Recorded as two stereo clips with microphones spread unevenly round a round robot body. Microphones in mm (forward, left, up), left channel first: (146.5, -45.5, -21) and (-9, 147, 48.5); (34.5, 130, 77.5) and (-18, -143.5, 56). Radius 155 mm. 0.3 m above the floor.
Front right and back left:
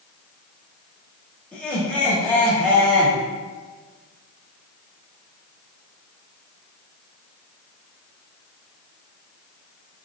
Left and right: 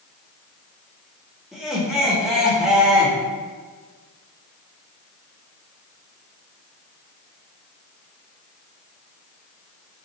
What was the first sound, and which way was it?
Laughter, 25° right.